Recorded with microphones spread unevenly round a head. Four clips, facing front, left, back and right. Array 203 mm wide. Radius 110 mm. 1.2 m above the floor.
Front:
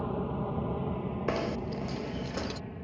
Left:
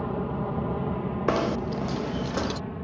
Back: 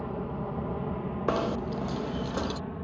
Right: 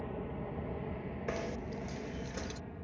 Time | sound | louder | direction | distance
0.0 | an aircraft | left 11 dB, front 1 dB | 80° left | ?
1.3 | knocking | left 13 dB, back 4 dB | 95° left | ?